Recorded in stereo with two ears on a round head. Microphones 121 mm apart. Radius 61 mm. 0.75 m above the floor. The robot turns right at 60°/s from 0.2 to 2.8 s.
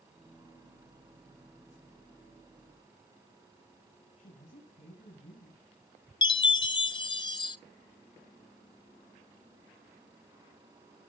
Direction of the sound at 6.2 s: 35° left (ahead or behind).